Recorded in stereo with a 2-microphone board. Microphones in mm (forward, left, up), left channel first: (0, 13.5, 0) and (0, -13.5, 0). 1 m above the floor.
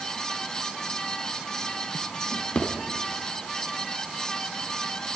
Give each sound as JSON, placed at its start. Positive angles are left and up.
{"t": 2.3, "sound": "a drawer", "side_deg": 45, "distance_m": 4.0}